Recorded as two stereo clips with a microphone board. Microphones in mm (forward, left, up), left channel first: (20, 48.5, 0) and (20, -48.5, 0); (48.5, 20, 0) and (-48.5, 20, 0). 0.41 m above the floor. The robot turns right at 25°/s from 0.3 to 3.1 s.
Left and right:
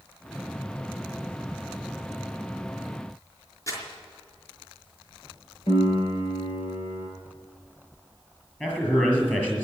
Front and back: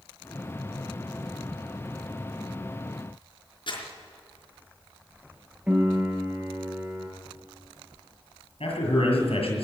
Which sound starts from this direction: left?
A piano, at 5.7 s.